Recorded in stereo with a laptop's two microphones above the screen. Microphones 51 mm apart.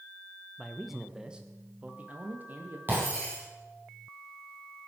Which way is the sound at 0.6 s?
5° left (ahead or behind).